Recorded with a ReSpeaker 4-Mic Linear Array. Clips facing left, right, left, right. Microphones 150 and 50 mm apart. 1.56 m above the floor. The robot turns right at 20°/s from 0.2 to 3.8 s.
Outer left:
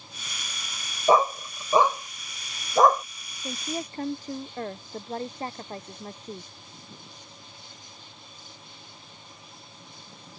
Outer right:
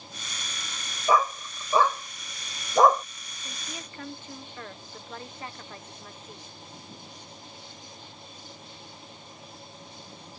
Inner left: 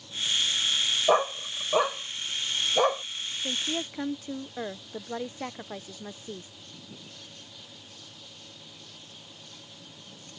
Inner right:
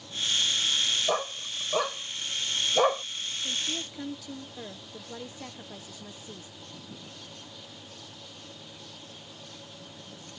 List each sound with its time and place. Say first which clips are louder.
1.1 s a dog barking: outer left 3 dB, inner left 6 dB; 30° left (ahead or behind); by 3.0 s 5° right (ahead or behind)
3.4 s a woman speaking: outer left 10 dB, inner left 4 dB; 45° left (ahead or behind); by 6.5 s 40° left (ahead or behind)